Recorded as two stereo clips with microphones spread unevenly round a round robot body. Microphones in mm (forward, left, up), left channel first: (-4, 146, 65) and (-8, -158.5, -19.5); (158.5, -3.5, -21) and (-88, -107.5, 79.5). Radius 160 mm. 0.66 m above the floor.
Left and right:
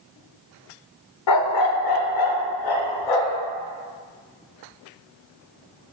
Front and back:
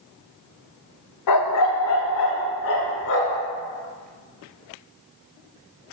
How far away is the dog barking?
About 0.6 m.